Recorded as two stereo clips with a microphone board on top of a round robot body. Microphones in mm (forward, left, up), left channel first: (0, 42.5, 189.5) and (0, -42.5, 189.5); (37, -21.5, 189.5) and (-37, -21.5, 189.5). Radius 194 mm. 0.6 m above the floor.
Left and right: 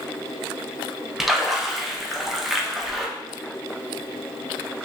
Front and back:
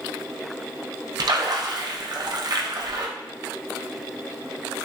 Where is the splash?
175° right, 0.8 m.